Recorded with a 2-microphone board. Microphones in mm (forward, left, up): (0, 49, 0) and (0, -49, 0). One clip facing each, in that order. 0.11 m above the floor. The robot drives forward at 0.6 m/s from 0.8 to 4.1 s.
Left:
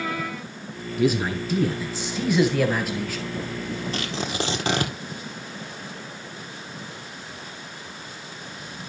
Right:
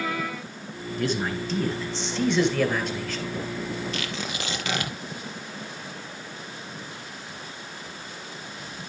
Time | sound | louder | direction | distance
1.0 | a man speaking | left 5 dB | 10° left (ahead or behind) | 1.6 m
3.9 | tearing paper | left 4 dB | 35° left (ahead or behind) | 1.6 m